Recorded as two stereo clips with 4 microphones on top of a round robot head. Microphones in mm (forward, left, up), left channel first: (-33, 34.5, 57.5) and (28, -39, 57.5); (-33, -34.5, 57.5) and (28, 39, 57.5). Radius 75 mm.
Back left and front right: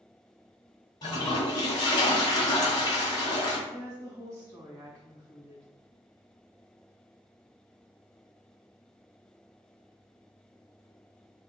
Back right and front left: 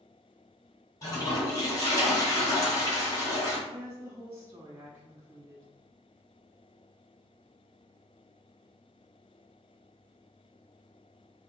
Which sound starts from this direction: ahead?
A woman speaking, at 3.7 s.